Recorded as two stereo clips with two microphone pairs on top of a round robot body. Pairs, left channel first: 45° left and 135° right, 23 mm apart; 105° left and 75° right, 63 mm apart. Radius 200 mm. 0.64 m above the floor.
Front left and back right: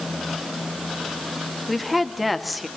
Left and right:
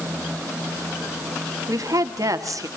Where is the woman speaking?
50° right, 2.5 m.